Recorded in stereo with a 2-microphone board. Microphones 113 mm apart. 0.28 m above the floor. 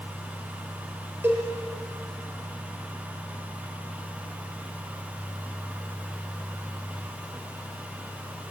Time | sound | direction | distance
1.2 | a cowbell | 20° right (ahead or behind) | 4.5 m